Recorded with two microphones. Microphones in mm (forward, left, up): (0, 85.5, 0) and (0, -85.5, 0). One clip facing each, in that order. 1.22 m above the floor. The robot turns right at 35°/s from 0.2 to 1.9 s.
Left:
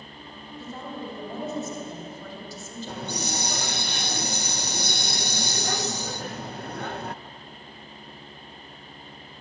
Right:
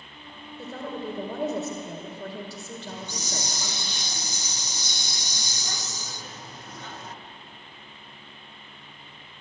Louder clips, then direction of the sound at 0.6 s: Right 3 dB; 115° right.